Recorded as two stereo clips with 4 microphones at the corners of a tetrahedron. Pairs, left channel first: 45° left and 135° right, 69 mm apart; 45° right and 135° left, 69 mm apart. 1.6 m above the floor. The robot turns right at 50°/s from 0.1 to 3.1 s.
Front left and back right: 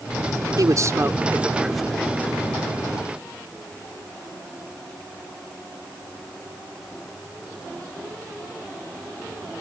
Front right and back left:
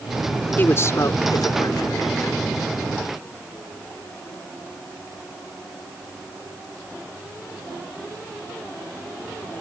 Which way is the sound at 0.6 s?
105° right.